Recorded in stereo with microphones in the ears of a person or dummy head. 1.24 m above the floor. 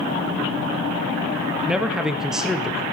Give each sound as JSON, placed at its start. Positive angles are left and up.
{"t": 1.6, "sound": "a man speaking", "side_deg": -5, "distance_m": 0.6}